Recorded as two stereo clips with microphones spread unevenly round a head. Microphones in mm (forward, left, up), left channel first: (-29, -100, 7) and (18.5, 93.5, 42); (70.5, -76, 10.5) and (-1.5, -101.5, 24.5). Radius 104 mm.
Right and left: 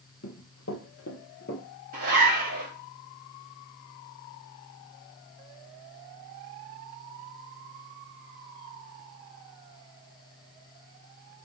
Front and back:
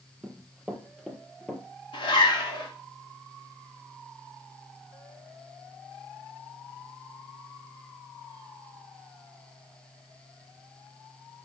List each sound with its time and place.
0.2 s running footsteps: 95° right, 2.5 m; by 1.6 s 75° right, 1.8 m
1.9 s a zipper: 25° left, 2.5 m